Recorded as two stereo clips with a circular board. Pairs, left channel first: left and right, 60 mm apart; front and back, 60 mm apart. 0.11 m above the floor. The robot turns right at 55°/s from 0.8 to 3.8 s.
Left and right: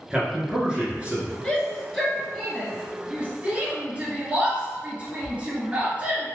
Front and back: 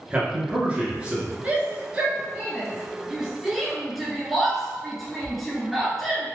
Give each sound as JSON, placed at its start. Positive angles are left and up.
{"t": 0.1, "sound": "a man speaking", "azimuth_deg": -145, "distance_m": 1.1}
{"t": 1.4, "sound": "a shout", "azimuth_deg": 145, "distance_m": 1.1}